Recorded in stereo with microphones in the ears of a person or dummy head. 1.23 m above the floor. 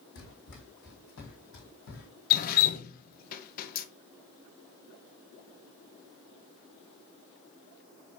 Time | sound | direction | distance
0.1 | running footsteps | 65° left (ahead or behind) | 3 m
2.3 | dripping | 40° left (ahead or behind) | 0.6 m